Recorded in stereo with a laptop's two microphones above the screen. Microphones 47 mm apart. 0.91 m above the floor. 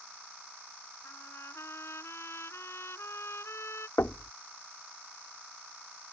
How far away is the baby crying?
I don't hear a baby crying.